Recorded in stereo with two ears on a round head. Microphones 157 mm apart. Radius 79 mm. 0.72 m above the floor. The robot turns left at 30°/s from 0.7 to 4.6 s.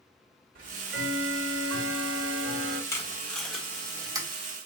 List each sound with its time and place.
0.6 s ticking: 50° right, 1.1 m; by 2.8 s 115° right, 1.1 m
2.9 s tape being pulled: 15° left (ahead or behind), 1.1 m; by 4.3 s 25° right (ahead or behind), 1.1 m